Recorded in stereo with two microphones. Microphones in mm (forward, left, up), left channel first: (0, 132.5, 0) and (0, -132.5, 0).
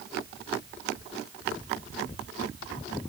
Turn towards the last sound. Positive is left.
No sound to turn to.